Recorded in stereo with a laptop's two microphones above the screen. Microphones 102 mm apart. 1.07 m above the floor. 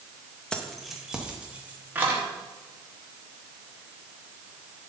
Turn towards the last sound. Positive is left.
turn(degrees=-20)  # may be behind; listen again after turning